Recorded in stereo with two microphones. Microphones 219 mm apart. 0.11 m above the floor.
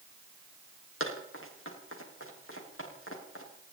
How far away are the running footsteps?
About 7 m.